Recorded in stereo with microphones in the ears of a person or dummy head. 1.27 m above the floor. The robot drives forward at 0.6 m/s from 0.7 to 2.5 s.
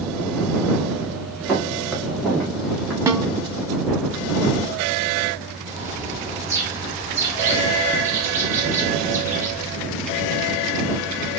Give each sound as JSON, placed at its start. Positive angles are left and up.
{"t": 1.5, "sound": "footsteps", "side_deg": -5, "distance_m": 6.5}
{"t": 3.1, "sound": "a snare drum", "side_deg": -15, "distance_m": 1.0}
{"t": 5.7, "sound": "a bird", "side_deg": -15, "distance_m": 7.5}